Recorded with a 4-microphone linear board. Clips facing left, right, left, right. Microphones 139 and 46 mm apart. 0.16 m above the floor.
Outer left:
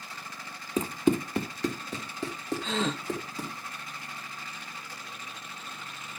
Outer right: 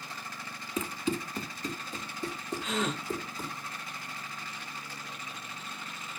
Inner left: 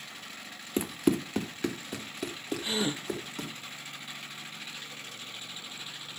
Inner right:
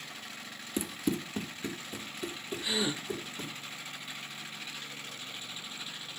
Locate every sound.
0.8 s running footsteps: 30° left (ahead or behind), 0.6 m; by 3.5 s 80° left, 3 m
2.6 s a gasp: 30° left (ahead or behind), 1.4 m